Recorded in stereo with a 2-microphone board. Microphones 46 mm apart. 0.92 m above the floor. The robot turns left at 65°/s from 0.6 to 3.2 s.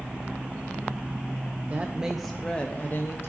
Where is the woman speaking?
145° right, 0.7 m; by 3.3 s 115° left, 0.7 m.